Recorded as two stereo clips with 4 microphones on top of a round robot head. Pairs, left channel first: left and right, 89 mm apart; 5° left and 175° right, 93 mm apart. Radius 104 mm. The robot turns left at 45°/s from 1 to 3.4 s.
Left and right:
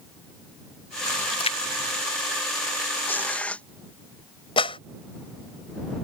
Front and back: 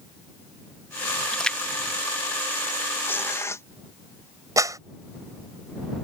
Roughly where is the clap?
Behind left.